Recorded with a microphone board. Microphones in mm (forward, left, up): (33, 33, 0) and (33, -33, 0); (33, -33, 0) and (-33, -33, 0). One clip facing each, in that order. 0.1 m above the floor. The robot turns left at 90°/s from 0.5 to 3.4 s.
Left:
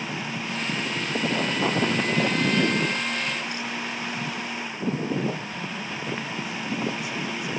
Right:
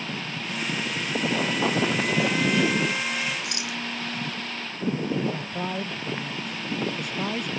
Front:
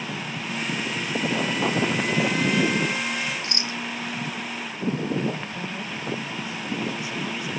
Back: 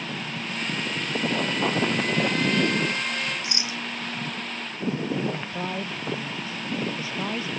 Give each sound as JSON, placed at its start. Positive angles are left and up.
{"t": 3.4, "sound": "a rattle", "azimuth_deg": -110}
{"t": 5.3, "sound": "a man speaking", "azimuth_deg": -125}